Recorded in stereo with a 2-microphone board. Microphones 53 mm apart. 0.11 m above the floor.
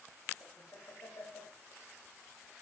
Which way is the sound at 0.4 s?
60° left (ahead or behind).